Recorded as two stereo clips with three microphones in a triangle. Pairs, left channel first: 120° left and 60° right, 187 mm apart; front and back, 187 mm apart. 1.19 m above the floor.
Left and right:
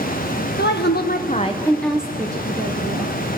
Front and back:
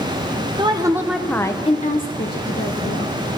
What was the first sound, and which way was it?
A woman speaking, 120° left.